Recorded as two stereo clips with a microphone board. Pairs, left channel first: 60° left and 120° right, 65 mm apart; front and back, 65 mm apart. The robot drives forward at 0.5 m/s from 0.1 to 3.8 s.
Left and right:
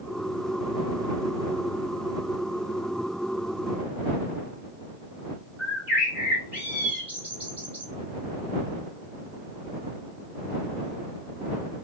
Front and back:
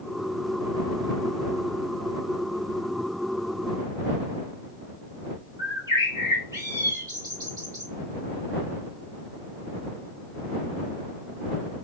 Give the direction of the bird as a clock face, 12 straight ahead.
6 o'clock.